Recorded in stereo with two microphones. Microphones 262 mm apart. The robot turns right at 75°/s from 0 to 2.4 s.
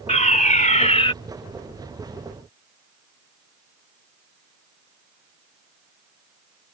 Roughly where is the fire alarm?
Left.